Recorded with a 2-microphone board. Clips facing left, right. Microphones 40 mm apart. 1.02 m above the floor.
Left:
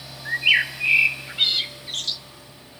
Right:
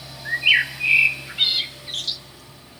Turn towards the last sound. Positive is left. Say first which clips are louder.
# right 1 dB
turn(degrees=-5)  # may be behind; listen again after turning